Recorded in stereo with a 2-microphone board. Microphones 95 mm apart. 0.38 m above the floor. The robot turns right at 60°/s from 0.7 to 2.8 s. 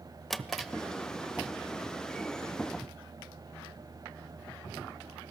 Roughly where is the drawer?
Centre.